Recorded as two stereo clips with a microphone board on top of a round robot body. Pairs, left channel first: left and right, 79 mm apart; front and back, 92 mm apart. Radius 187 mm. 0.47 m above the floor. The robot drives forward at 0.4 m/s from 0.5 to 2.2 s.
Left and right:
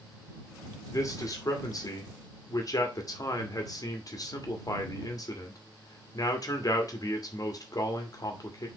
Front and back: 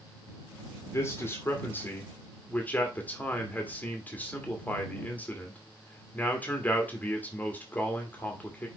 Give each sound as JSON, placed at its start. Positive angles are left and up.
{"t": 0.9, "sound": "a man speaking", "azimuth_deg": 50, "distance_m": 2.5}